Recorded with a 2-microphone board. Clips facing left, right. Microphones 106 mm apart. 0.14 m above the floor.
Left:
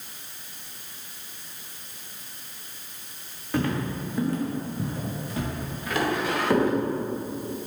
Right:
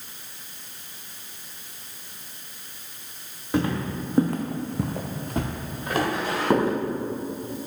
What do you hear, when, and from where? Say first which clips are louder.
3.5 s footsteps: right 2 dB; 20° right (ahead or behind), 1.2 m; by 6.7 s 25° right (ahead or behind), 2 m